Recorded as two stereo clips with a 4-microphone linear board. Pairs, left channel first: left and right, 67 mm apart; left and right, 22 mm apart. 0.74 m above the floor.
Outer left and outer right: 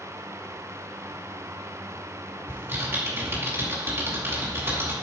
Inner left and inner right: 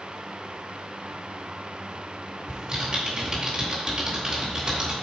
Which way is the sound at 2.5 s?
30° right (ahead or behind).